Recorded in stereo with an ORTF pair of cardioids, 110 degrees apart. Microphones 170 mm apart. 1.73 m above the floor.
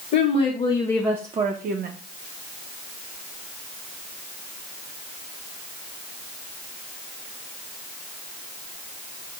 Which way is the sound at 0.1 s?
50° left.